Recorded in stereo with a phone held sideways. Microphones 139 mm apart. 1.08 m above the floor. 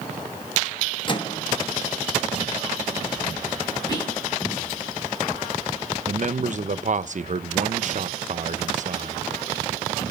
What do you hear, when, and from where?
1.1 s a microwave: 35° left (ahead or behind), 1.5 m
3.9 s whispering: 25° left (ahead or behind), 6.5 m
6.1 s a man speaking: 55° right (ahead or behind), 0.7 m